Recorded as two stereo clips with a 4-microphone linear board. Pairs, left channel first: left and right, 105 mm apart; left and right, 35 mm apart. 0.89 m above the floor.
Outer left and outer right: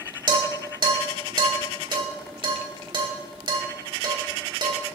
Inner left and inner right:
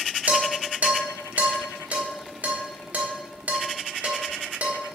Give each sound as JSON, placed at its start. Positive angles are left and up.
{"t": 0.3, "sound": "dishes clattering", "side_deg": -50, "distance_m": 1.6}